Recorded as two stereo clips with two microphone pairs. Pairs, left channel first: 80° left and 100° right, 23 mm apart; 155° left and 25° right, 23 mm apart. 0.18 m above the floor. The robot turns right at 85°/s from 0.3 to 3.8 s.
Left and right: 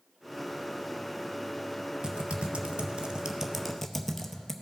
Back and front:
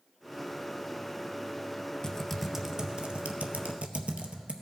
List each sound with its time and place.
2.0 s typing on a keyboard: 150° right, 0.6 m; by 4.5 s straight ahead, 0.6 m